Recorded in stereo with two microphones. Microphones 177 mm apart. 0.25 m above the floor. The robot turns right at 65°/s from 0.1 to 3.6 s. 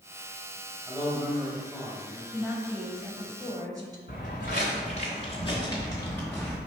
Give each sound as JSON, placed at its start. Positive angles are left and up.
{"t": 0.9, "sound": "a man speaking", "side_deg": -15, "distance_m": 1.0}
{"t": 2.3, "sound": "a woman speaking", "side_deg": -5, "distance_m": 0.9}
{"t": 4.1, "sound": "footsteps", "side_deg": 60, "distance_m": 1.4}